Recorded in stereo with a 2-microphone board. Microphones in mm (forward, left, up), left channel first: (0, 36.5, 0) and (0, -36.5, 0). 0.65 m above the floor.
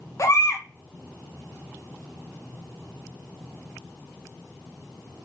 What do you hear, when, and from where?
0.2 s a baby crying: 40° left (ahead or behind), 0.6 m